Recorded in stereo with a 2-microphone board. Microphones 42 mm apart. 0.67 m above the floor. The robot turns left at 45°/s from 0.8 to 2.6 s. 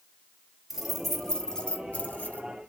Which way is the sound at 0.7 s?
10° right (ahead or behind).